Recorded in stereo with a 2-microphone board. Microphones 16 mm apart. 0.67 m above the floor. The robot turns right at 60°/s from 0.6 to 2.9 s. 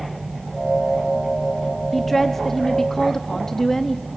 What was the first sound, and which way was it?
A woman speaking, 5° left (ahead or behind).